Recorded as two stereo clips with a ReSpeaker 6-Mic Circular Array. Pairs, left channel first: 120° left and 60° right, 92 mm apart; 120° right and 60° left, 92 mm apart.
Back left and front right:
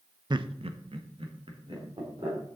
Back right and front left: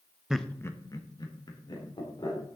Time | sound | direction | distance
0.3 | laughter | 25° right | 0.6 m